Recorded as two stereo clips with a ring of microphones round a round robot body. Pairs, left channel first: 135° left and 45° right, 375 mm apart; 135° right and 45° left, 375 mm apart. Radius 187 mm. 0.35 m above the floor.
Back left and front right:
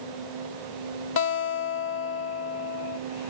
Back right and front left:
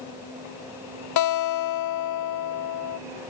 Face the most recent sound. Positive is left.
turn(degrees=-170)